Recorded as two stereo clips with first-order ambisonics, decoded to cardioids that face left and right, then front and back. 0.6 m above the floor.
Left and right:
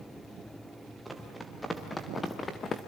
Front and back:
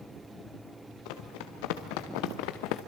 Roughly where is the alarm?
No alarm in this recording.